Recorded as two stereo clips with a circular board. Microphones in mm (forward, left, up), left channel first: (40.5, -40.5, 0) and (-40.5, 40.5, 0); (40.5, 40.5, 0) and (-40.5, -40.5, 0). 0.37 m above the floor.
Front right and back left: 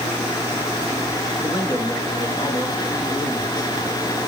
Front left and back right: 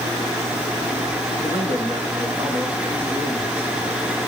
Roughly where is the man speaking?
Right.